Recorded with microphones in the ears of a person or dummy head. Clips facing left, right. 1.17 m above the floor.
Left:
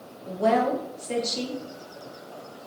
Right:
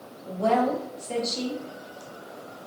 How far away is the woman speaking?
About 0.8 m.